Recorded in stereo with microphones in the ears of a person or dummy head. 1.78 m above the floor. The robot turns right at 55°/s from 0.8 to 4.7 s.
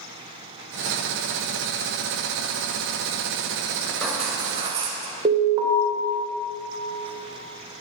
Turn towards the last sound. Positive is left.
turn(degrees=-25)  # may be behind; listen again after turning